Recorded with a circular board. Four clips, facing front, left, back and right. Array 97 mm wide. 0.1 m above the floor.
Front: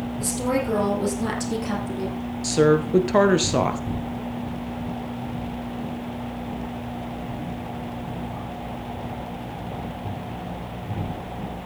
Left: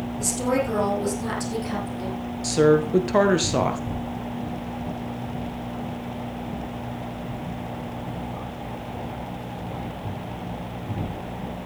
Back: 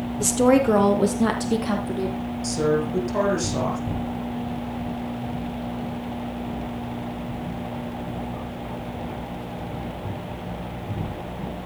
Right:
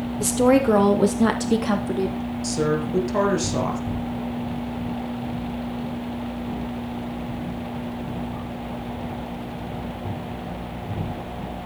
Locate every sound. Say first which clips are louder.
0.2 s a woman speaking: right 7 dB, back 8 dB; 140° right, 3 m; by 2.2 s 105° right, 4 m
2.4 s a woman speaking: left 6 dB, front 4 dB; 30° left, 1.7 m